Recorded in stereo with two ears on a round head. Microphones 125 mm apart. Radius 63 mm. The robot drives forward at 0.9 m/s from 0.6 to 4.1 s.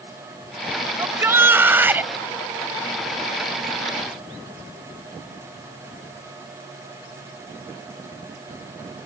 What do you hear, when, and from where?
1.0 s a shout: 20° right (ahead or behind); by 2.1 s 15° right (ahead or behind)